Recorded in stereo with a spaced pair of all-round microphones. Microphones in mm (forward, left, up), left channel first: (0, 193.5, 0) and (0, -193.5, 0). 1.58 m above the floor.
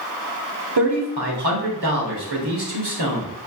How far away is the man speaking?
About 1.3 m.